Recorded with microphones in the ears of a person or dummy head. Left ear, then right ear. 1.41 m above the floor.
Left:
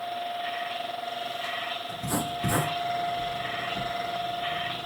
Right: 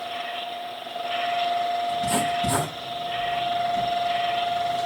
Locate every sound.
1.9 s writing: 10° left (ahead or behind), 8.5 m